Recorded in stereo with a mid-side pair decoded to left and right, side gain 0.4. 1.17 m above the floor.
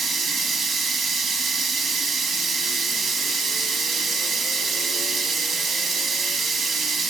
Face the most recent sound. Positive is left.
turn(degrees=-65)